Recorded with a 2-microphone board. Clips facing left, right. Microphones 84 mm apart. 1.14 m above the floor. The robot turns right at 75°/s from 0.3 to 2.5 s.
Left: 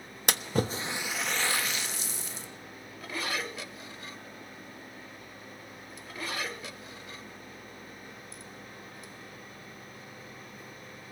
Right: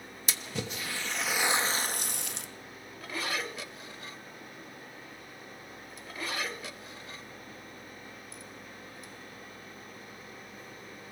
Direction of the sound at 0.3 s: 70° left (ahead or behind).